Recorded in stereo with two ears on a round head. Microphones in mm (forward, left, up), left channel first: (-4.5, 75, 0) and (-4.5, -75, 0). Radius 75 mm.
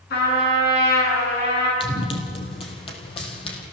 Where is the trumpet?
65° left (ahead or behind), 8.5 m.